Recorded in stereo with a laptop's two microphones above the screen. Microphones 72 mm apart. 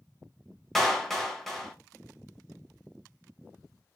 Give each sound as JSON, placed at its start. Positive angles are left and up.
{"t": 0.8, "sound": "a clap", "side_deg": 5, "distance_m": 0.7}